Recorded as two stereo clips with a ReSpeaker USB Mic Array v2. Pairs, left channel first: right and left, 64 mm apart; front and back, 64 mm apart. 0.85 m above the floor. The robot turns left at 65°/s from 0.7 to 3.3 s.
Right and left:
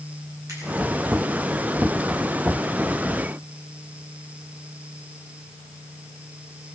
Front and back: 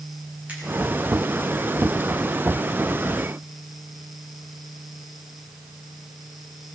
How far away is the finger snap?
About 6 m.